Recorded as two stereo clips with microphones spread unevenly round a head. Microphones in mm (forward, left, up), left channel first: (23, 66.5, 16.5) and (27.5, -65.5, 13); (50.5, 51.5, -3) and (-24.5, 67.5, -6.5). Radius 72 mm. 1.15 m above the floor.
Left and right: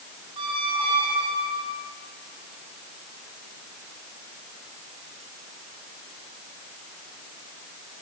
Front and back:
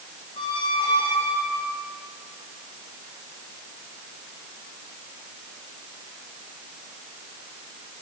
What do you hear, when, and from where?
0.4 s a squeak: 35° right, 3 m